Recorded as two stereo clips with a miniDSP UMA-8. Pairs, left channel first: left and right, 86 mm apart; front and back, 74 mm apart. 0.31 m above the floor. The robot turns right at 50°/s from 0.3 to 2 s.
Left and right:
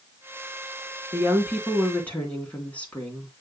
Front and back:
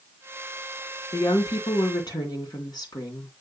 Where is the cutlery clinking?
I don't hear cutlery clinking.